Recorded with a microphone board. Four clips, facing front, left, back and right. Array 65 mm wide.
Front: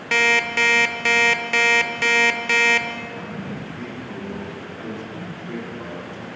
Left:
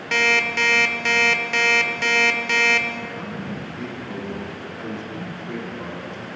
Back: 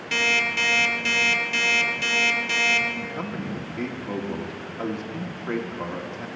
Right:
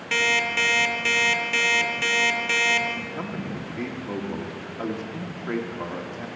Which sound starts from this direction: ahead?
An alarm clock, at 0.1 s.